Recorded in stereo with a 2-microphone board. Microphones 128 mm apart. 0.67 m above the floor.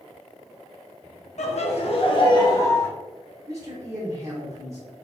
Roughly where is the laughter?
Left.